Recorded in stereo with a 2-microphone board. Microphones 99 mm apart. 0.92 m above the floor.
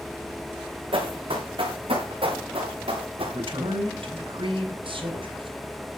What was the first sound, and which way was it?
Running footsteps, 70° right (ahead or behind).